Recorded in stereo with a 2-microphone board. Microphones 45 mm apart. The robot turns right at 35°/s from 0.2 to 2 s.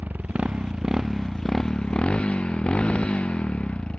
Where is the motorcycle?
35° right; by 4.0 s 25° left.